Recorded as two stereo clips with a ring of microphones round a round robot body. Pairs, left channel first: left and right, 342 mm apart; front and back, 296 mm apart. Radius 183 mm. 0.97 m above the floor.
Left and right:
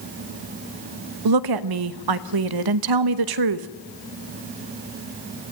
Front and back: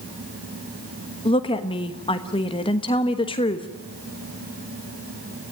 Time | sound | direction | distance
1.2 | a woman speaking | 75° right | 1.0 m